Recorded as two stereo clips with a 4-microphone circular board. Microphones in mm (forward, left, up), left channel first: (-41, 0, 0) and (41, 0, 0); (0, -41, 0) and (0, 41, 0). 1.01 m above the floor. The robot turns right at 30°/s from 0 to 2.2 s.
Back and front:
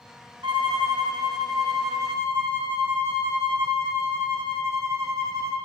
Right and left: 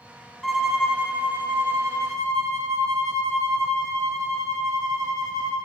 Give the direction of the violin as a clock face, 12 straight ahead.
12 o'clock.